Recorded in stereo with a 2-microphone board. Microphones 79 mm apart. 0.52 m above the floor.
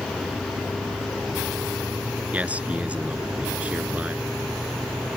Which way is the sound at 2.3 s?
15° right (ahead or behind).